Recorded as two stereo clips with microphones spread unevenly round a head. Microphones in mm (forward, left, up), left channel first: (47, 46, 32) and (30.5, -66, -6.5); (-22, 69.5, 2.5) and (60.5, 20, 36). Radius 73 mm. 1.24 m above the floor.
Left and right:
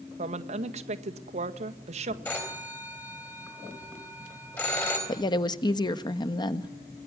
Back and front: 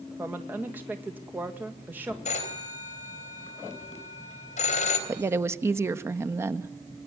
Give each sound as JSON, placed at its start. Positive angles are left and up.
{"t": 0.2, "sound": "a woman speaking", "azimuth_deg": -115, "distance_m": 1.7}
{"t": 2.2, "sound": "a phone ringing", "azimuth_deg": 155, "distance_m": 3.5}
{"t": 5.1, "sound": "a woman speaking", "azimuth_deg": 30, "distance_m": 1.3}